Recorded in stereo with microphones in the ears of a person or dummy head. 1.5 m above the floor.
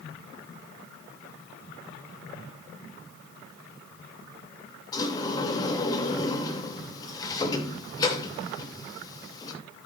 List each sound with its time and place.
4.9 s a sliding door: 25° left (ahead or behind), 2.5 m